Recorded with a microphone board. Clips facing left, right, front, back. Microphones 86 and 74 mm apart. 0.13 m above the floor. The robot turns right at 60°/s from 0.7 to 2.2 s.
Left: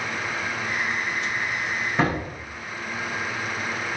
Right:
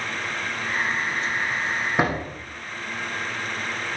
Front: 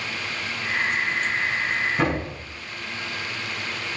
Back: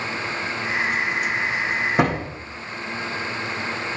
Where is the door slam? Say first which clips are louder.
Left 1 dB, back 3 dB; 165° right, 6.5 m; by 2.4 s 150° right, 6.5 m.